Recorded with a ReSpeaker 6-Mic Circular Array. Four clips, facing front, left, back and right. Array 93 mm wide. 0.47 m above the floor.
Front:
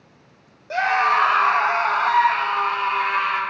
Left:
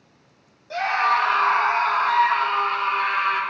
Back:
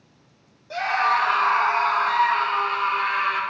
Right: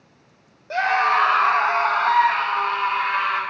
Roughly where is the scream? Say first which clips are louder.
Right 2 dB, front 3 dB; ahead right.